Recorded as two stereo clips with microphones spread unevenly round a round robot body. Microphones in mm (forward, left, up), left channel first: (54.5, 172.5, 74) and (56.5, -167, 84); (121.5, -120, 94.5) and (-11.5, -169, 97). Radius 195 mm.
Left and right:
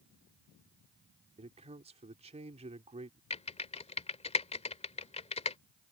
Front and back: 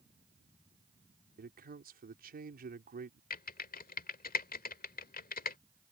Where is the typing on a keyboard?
20° left.